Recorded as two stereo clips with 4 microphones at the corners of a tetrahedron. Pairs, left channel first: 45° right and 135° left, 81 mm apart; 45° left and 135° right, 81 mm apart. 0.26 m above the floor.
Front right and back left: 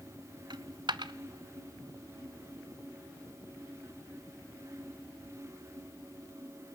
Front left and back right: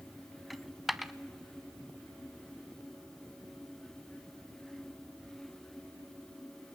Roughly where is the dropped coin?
Behind left.